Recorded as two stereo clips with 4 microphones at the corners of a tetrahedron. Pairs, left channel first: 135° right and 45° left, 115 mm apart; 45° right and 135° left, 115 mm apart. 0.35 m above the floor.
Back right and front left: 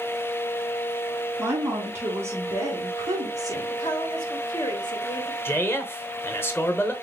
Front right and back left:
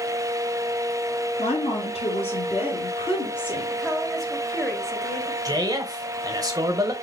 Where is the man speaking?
165° left, 1.1 m.